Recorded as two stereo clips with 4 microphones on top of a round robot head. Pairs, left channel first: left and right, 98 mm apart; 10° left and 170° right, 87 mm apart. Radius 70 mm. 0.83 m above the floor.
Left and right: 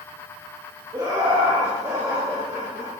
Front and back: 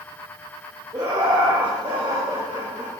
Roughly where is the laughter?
Behind right.